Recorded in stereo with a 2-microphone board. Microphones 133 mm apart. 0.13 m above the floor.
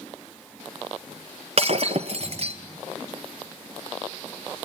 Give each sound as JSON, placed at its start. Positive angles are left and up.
{"t": 1.6, "sound": "breaking glass", "side_deg": -50, "distance_m": 1.6}